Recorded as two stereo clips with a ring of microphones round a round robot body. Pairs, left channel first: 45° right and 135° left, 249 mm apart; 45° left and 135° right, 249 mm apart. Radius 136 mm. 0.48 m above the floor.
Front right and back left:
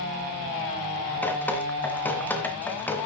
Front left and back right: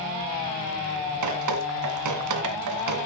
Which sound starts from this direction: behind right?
Dripping, at 1.2 s.